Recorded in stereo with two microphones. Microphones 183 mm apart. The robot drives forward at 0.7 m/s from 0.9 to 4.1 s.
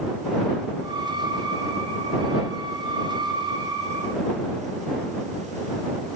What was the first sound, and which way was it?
Only background noise.